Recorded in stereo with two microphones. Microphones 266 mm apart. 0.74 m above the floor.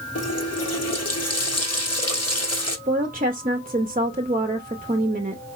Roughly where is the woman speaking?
Right.